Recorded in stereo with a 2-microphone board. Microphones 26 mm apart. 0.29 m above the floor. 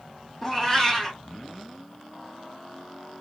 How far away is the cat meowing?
About 2.5 m.